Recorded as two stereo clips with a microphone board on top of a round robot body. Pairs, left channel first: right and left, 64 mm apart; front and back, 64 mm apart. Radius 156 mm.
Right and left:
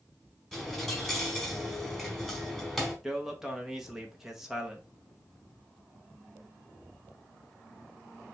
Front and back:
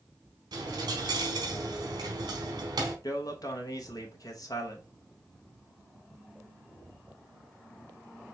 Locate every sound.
0.5 s a dropped coin: straight behind, 1.1 m
3.0 s a man speaking: 10° left, 1.5 m